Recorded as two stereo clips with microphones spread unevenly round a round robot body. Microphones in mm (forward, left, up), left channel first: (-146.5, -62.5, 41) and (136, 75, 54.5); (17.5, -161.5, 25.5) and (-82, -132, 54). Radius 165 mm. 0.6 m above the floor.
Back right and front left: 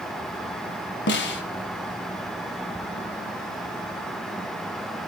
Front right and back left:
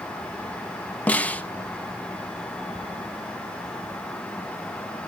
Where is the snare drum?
95° right, 1.6 m.